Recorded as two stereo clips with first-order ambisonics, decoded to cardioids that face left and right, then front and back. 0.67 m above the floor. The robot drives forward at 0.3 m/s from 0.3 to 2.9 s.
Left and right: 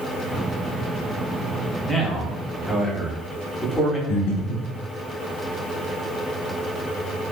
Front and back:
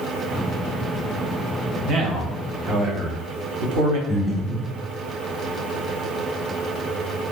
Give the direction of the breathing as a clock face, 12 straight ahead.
9 o'clock.